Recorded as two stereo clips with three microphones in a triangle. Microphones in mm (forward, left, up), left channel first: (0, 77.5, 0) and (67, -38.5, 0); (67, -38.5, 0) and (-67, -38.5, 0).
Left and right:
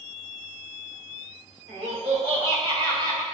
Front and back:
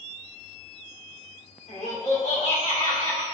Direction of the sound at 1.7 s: 25° right.